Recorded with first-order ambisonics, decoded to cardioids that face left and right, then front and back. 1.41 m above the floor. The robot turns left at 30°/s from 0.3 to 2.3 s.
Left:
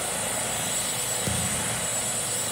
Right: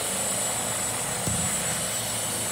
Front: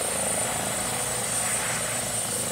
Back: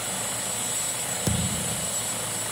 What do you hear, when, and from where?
1.3 s a thud: straight behind; by 1.9 s 160° left